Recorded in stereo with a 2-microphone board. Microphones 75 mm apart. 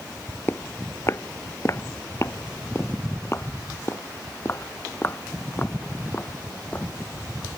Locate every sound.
0.5 s footsteps: 35° left (ahead or behind); by 6.9 s 30° left (ahead or behind)